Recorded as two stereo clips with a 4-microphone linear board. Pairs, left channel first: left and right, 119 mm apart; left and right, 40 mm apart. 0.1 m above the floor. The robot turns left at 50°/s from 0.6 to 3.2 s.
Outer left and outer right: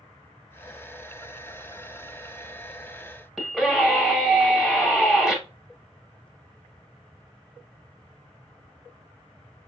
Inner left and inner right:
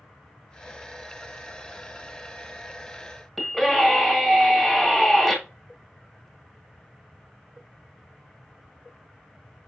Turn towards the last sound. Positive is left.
turn(degrees=0)  # may be behind; listen again after turning